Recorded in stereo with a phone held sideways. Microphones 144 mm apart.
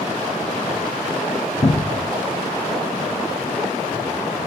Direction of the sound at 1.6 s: 45° left (ahead or behind).